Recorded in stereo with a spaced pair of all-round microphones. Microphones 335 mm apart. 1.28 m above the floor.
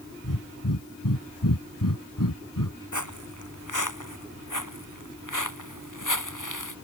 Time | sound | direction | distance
0.2 | breathing | 85° left | ?
2.9 | footsteps | 65° left (ahead or behind) | ?